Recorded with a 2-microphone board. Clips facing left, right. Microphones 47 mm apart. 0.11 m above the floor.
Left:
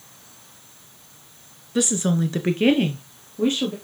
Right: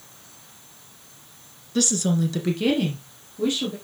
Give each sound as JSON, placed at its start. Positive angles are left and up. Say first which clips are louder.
{"t": 1.8, "sound": "a woman speaking", "louder": "left 1 dB", "side_deg": 20, "distance_m": 1.2}